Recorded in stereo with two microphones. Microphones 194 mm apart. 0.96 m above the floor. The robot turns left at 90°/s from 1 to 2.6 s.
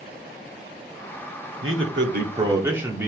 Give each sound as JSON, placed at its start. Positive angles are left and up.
{"t": 1.6, "sound": "a man speaking", "azimuth_deg": -80, "distance_m": 1.8}